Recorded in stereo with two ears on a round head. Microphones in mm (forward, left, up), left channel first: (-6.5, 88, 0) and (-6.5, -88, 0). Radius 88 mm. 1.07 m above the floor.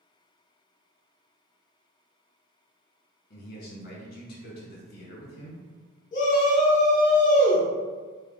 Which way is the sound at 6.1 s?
40° left (ahead or behind).